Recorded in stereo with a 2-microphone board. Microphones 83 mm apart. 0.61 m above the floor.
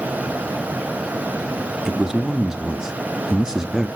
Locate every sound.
1.9 s a man speaking: 5° right (ahead or behind), 0.8 m